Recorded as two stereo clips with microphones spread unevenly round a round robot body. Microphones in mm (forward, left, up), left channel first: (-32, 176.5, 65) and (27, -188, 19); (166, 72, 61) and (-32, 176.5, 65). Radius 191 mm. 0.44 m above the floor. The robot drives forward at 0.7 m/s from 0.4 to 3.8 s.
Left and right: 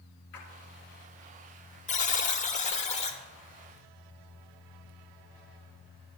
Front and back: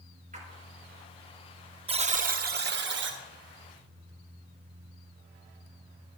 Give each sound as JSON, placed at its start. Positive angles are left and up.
{"t": 0.3, "sound": "a splash", "azimuth_deg": 95, "distance_m": 4.0}
{"t": 1.9, "sound": "a buzzer", "azimuth_deg": 155, "distance_m": 0.8}